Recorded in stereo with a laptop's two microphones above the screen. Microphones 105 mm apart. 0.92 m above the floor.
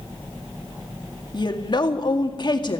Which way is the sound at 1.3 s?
45° left (ahead or behind).